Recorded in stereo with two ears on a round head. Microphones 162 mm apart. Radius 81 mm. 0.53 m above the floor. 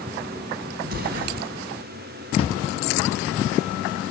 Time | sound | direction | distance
0.8 | an explosion | 55° right (ahead or behind) | 3 m
2.4 | a drawer | 35° left (ahead or behind) | 4 m